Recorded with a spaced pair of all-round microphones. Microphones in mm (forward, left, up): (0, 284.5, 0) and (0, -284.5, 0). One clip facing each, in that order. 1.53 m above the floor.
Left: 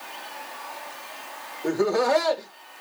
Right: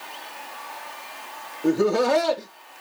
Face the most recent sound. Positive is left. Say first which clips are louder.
# right 3 dB
turn(degrees=-55)  # may be behind; listen again after turning